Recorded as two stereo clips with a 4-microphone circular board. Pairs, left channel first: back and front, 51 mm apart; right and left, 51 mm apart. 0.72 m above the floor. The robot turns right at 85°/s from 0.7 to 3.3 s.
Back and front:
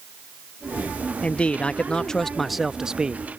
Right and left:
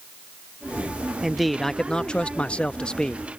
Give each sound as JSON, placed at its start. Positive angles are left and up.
{"t": 1.2, "sound": "a man speaking", "azimuth_deg": 165}